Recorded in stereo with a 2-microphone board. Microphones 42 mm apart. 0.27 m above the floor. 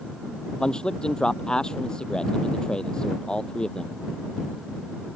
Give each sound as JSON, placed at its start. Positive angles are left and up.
{"t": 0.6, "sound": "a man speaking", "side_deg": 20}